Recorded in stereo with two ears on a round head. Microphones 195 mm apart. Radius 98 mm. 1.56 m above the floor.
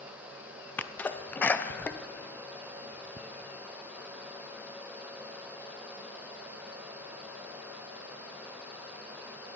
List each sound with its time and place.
0.8 s a sneeze: 10° left (ahead or behind), 0.5 m